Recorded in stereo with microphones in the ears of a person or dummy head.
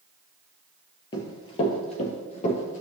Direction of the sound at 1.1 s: 30° left (ahead or behind).